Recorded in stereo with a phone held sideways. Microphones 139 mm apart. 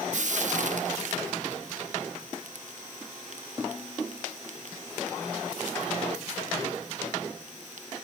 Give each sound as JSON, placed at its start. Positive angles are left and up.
{"t": 0.1, "sound": "frying", "side_deg": -60, "distance_m": 1.2}